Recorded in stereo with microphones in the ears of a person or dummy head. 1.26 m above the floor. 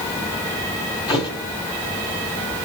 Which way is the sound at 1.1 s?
30° left (ahead or behind).